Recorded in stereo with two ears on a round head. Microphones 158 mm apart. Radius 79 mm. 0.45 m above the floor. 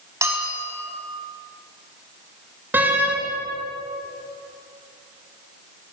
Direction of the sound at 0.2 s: 15° right (ahead or behind).